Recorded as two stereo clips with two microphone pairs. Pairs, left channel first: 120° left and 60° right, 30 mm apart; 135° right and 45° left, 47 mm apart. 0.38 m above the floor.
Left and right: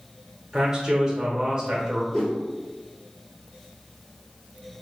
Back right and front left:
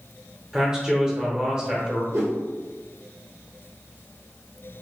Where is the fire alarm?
I don't hear a fire alarm.